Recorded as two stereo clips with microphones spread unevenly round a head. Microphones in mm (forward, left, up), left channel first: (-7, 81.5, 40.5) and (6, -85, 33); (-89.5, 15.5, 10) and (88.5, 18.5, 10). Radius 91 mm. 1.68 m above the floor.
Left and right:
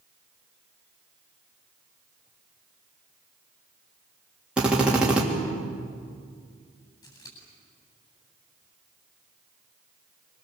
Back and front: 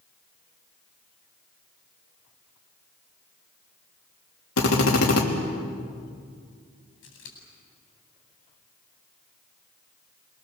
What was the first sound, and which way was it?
A drill, 170° right.